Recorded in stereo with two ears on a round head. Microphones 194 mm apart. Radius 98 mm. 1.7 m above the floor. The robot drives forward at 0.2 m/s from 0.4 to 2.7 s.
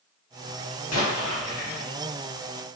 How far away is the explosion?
About 1.6 m.